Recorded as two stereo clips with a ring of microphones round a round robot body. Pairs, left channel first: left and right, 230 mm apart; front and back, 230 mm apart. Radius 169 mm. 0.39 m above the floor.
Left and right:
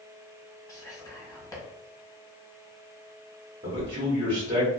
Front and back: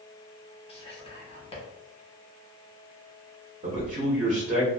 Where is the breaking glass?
I don't hear breaking glass.